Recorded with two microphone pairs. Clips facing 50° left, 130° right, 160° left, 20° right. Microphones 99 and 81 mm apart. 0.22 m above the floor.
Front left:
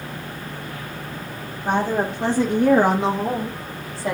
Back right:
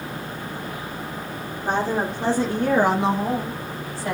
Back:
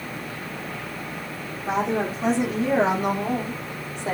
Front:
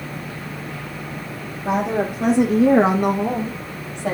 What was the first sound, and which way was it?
A woman speaking, 30° right.